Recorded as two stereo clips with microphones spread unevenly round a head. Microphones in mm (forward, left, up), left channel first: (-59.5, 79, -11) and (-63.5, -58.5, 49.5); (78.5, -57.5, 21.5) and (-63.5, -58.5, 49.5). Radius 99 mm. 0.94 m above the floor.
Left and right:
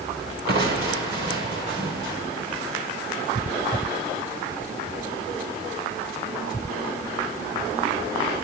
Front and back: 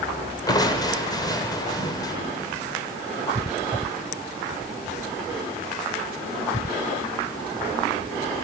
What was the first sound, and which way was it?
Crushing, 65° right.